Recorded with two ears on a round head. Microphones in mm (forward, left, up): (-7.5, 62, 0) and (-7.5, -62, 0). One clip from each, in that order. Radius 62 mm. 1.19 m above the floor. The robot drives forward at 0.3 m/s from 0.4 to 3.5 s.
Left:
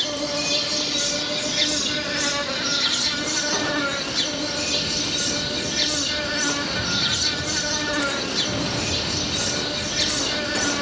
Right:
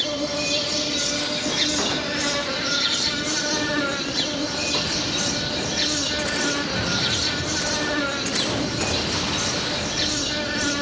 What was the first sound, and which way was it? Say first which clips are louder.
An insect: even; 20° left (ahead or behind).